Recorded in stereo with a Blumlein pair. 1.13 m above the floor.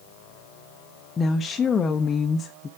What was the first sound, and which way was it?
A woman speaking, 20° left.